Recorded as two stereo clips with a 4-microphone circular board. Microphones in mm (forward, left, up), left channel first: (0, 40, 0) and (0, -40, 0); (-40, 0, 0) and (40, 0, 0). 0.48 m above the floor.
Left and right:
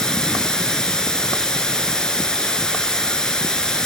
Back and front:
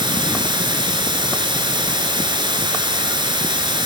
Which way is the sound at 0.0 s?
10° left.